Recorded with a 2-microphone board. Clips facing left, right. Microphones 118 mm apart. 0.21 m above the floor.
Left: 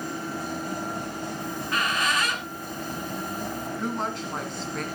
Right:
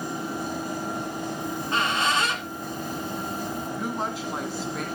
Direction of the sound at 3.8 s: 5° right (ahead or behind).